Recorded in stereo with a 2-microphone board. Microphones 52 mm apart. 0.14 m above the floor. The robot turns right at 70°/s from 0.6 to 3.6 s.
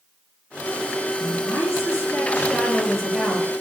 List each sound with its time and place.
1.2 s a woman speaking: 50° left, 2.5 m; by 3.5 s 150° right, 2.5 m